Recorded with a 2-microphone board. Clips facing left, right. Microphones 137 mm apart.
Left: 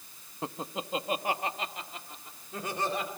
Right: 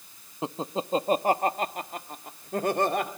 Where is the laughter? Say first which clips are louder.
Right 6 dB; 20° right (ahead or behind), 0.6 m; by 3.1 s 60° right (ahead or behind), 1.9 m.